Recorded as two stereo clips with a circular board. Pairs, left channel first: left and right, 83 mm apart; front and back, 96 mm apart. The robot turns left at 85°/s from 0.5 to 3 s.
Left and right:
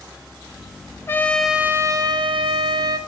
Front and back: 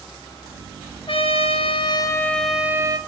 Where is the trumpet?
30° left, 0.6 m; by 3.0 s 135° right, 0.6 m.